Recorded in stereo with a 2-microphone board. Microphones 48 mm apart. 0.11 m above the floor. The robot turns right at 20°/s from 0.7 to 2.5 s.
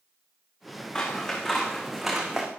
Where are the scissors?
160° left, 4 m; by 2.5 s 170° right, 4 m.